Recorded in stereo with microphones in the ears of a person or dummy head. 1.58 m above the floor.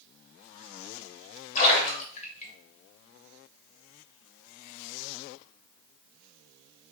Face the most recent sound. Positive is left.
turn(degrees=40)  # may be behind; listen again after turning